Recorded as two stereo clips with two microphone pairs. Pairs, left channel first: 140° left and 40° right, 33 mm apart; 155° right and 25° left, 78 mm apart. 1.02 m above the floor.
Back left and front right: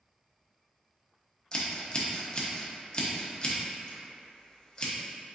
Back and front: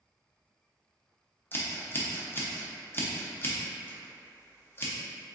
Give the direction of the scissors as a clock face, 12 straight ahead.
6 o'clock.